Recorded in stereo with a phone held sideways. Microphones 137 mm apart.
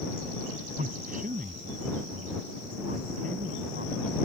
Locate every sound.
0.8 s a man speaking: 80° right